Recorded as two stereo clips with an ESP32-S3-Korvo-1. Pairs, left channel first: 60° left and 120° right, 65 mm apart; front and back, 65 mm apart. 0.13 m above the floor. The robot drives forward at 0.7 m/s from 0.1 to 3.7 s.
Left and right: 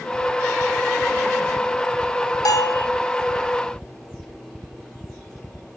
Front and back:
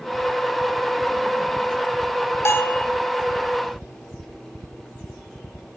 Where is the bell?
45° left, 0.8 m; by 2.9 s 65° left, 0.7 m.